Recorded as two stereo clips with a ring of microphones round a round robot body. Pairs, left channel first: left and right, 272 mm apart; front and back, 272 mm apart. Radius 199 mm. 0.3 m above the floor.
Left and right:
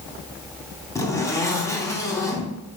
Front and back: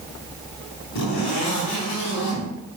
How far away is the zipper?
About 2.5 m.